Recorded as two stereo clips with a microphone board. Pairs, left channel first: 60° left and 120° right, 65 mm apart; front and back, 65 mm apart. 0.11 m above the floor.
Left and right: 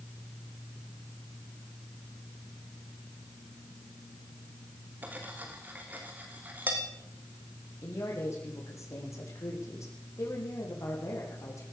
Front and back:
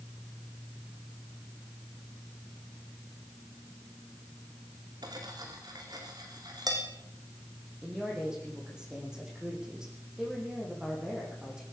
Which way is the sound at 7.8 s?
100° left.